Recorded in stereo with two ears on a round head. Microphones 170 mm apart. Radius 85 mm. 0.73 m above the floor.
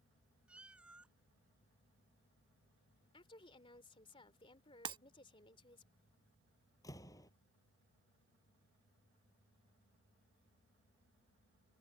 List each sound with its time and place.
0.5 s a cat meowing: 5° right (ahead or behind)
3.1 s a woman speaking: 30° left (ahead or behind)
4.8 s breaking glass: 25° right (ahead or behind)
6.8 s a door slam: 20° left (ahead or behind)